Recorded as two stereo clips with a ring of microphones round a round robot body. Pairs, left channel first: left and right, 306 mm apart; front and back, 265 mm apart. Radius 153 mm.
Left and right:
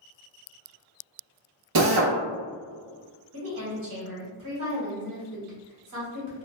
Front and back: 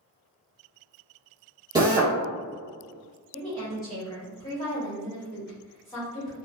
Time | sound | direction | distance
1.8 | a drill | 105° right | 0.7 m
3.3 | a woman speaking | 70° right | 1.4 m